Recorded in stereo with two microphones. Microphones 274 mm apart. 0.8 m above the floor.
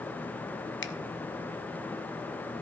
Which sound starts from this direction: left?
A finger snap, at 0.8 s.